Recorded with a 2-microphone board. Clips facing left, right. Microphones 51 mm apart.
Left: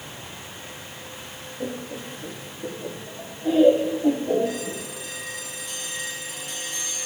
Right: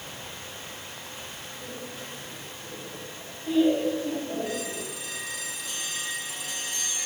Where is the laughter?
65° left (ahead or behind), 3 m.